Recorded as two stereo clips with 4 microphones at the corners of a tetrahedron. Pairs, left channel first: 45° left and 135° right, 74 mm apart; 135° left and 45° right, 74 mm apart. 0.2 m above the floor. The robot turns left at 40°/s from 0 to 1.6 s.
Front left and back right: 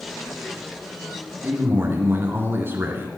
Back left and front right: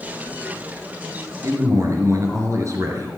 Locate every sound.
1.4 s a man speaking: 75° right, 3 m; by 3.1 s 80° right, 3 m